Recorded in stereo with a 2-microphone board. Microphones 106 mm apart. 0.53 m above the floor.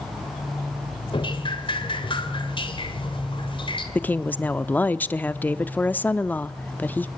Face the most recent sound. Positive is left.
turn(degrees=15)  # may be behind; listen again after turning